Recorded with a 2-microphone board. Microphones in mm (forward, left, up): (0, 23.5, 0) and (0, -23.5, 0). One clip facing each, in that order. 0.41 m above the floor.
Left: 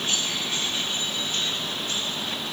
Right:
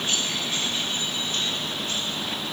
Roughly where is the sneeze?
I don't hear a sneeze.